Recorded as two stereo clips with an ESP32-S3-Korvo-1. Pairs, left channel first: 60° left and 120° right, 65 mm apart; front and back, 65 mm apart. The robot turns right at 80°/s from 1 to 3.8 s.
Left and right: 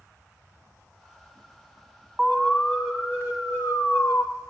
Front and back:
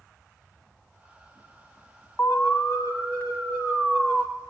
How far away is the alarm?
About 1.3 m.